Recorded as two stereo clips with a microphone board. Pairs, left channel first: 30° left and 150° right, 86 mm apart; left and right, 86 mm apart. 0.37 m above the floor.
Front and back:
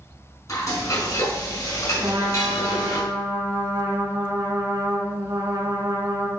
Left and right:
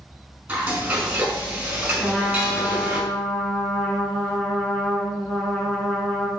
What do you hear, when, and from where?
0.5 s frying: 15° right, 4.5 m
2.0 s a trumpet: 165° left, 2.5 m